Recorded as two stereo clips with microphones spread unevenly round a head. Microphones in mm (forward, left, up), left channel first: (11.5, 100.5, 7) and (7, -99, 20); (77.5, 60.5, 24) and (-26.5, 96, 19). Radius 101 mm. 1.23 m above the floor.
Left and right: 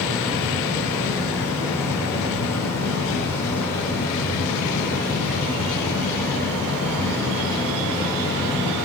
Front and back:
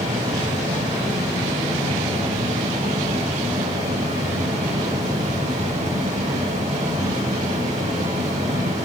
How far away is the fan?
About 2 m.